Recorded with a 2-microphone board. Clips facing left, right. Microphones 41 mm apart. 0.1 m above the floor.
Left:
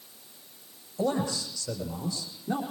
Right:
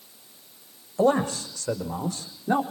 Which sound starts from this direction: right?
A man speaking, at 1.0 s.